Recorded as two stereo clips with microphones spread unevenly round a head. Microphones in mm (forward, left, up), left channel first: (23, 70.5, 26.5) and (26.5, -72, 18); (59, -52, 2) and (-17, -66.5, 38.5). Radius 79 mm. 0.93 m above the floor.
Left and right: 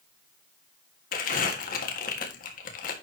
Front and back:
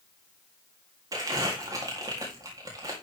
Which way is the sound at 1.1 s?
120° left.